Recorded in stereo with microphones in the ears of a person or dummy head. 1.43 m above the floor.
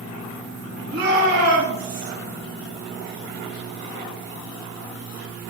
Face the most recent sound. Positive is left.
turn(degrees=-65)  # may be behind; listen again after turning